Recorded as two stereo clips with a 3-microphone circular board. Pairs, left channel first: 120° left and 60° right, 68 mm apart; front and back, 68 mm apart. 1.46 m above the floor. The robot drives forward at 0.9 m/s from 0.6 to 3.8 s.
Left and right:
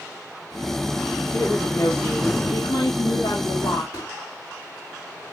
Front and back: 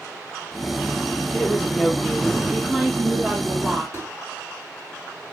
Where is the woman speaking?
75° left, 3 m; by 3.8 s 120° left, 3 m.